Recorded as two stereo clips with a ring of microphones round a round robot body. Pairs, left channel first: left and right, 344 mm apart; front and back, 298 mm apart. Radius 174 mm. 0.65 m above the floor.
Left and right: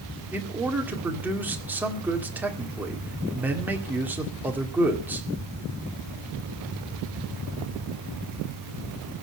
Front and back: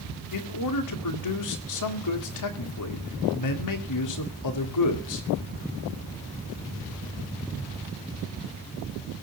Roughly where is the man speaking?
Ahead.